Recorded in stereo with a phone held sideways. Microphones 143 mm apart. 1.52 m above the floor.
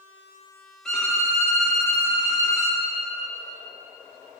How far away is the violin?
About 1.5 m.